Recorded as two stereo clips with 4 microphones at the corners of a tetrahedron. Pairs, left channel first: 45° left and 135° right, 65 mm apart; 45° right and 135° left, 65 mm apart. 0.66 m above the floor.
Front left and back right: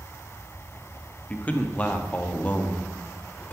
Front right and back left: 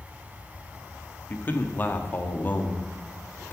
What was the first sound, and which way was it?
A man speaking, 5° right.